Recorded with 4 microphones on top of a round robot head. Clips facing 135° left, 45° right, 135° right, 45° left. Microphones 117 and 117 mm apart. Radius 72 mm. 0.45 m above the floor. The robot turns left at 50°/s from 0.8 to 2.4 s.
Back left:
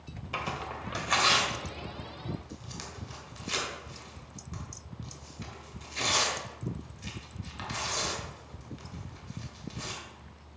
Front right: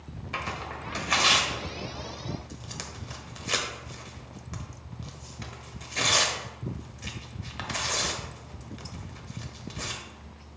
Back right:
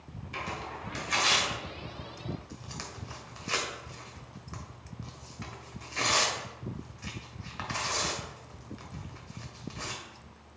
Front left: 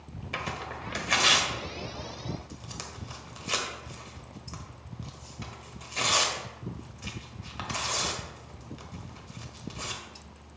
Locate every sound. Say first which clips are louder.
0.3 s tearing paper: even, front left 2 dB; 55° left, 1.6 m; by 10.0 s 25° right, 1.6 m